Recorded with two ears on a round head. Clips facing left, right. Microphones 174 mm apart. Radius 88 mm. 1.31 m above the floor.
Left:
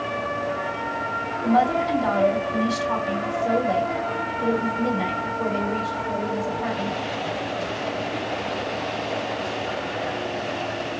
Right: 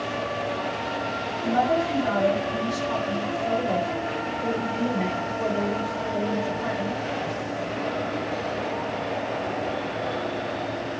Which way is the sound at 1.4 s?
50° left (ahead or behind).